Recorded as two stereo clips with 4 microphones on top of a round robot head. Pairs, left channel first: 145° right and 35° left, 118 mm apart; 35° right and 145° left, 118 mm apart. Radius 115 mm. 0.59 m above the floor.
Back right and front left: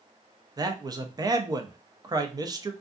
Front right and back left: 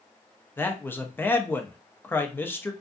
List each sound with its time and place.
0.6 s a man speaking: 20° left, 0.6 m